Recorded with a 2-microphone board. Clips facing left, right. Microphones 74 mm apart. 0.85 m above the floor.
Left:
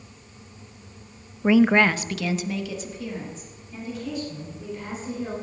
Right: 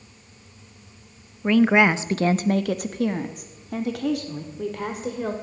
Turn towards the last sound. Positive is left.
turn(degrees=-80)